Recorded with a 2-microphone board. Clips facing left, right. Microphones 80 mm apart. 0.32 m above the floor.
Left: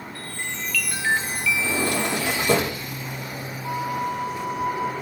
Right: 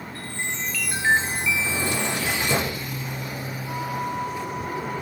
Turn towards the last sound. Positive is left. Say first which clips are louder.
# left 3 dB
turn(degrees=70)  # may be behind; listen again after turning